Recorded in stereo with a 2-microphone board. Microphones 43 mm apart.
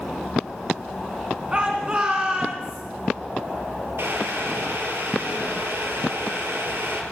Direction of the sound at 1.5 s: 25° right (ahead or behind).